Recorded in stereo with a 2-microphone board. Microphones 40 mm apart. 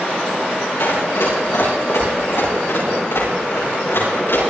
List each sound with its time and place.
0.8 s running footsteps: 85° left, 9.5 m; by 4.4 s 70° left (ahead or behind), 12 m